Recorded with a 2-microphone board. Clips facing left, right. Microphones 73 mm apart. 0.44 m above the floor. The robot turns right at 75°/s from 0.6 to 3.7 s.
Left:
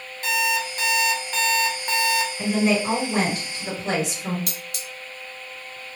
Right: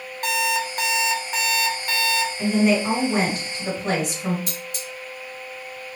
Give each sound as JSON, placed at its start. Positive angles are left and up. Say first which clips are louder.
{"t": 0.2, "sound": "an alarm clock", "louder": "right 1 dB", "azimuth_deg": -70, "distance_m": 0.8}
{"t": 2.4, "sound": "a woman speaking", "louder": "right 3 dB", "azimuth_deg": 155, "distance_m": 2.0}
{"t": 4.5, "sound": "cutlery clinking", "louder": "right 2 dB", "side_deg": 70, "distance_m": 1.2}